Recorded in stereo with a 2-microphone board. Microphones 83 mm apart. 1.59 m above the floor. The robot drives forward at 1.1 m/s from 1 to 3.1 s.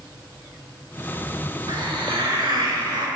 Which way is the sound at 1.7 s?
70° right (ahead or behind).